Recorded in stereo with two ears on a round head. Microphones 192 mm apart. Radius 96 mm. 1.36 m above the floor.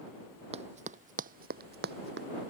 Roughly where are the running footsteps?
Right.